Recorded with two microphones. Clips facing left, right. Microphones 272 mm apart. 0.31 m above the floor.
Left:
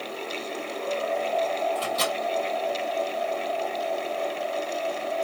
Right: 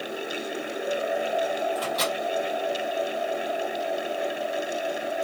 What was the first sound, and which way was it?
A microwave, 30° left (ahead or behind).